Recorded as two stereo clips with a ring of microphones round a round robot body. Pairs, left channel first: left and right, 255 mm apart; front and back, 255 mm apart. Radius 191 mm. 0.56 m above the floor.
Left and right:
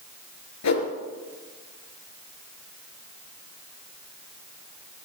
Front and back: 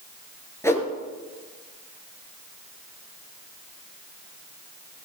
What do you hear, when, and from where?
0.6 s a whoosh: 80° left, 3.5 m